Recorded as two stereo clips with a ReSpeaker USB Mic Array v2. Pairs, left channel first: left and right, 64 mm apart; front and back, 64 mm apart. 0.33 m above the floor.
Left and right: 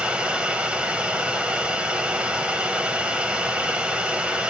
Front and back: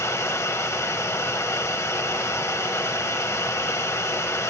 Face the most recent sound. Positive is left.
turn(degrees=-20)